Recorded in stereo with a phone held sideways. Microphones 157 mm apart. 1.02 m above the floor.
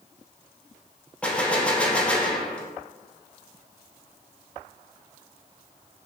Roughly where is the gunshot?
Centre.